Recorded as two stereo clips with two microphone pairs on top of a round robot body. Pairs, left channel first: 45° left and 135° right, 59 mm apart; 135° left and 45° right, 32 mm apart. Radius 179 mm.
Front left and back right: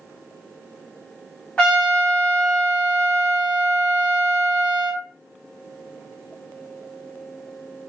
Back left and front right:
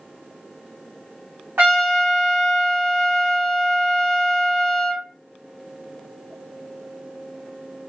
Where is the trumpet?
25° right, 1.6 m.